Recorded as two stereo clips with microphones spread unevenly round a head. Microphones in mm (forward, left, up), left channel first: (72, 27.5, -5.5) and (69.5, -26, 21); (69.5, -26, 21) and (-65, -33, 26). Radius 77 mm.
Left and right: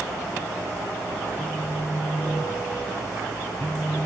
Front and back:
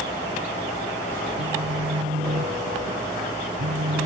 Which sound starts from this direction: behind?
A phone buzzing, at 1.4 s.